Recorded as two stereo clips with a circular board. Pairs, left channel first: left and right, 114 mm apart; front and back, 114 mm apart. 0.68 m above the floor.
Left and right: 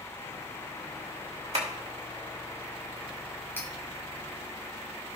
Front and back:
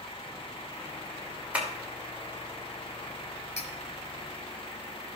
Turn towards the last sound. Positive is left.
turn(degrees=20)